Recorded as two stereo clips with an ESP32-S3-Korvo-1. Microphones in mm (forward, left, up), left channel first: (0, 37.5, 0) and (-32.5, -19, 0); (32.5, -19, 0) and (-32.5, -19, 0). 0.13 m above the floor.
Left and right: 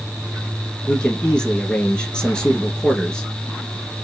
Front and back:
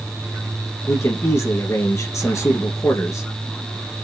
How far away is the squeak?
I don't hear a squeak.